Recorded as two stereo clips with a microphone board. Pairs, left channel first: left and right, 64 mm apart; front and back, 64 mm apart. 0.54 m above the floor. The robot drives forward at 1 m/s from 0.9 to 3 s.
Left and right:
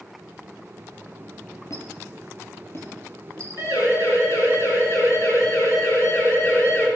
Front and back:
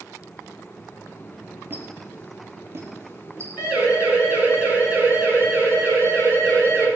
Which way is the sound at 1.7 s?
125° left.